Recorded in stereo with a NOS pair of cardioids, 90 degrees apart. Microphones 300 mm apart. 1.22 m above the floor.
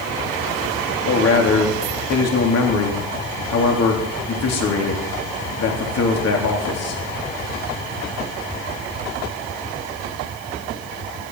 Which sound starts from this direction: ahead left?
A man speaking, at 1.1 s.